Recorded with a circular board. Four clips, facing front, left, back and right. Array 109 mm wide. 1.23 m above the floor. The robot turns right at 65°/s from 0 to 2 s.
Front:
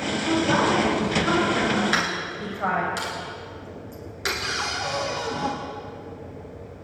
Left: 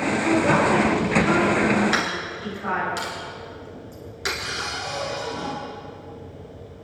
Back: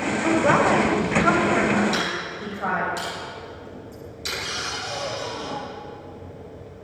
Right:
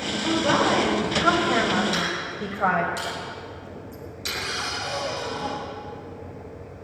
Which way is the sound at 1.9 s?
35° left.